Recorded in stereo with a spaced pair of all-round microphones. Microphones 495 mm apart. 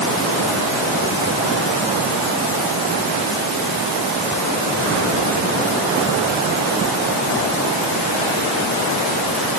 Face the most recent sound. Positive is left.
No sound to turn to.